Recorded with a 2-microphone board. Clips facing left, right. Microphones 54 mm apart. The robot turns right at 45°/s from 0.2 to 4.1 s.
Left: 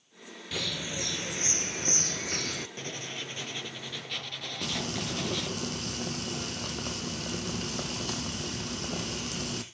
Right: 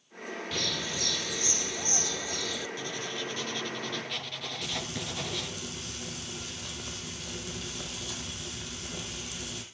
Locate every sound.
0.5 s a bird: straight ahead, 0.8 m; by 2.7 s 100° left, 0.8 m
2.8 s writing: 120° left, 2 m; by 5.5 s straight behind, 2 m
4.6 s frying: 55° left (ahead or behind), 2 m